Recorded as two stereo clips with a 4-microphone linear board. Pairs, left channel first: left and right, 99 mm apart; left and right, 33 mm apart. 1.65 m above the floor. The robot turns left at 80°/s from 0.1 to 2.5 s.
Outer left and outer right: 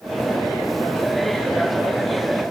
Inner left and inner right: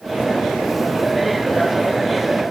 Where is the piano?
I don't hear a piano.